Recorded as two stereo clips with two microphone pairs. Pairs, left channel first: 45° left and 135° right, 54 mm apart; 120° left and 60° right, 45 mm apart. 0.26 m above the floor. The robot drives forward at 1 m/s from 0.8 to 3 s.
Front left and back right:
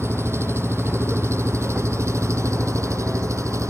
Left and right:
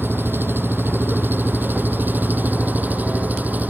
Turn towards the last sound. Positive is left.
turn(degrees=-110)